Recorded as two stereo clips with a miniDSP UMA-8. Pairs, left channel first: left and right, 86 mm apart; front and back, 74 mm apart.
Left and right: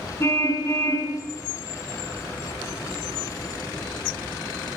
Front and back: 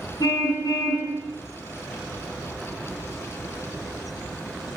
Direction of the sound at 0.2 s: 35° left.